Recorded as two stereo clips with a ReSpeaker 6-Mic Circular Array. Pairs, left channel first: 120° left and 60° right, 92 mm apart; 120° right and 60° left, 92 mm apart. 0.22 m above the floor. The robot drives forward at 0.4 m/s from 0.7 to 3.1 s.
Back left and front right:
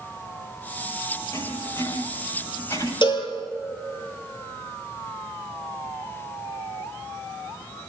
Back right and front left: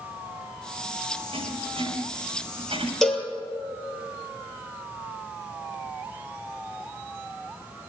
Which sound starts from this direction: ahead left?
Writing, at 1.3 s.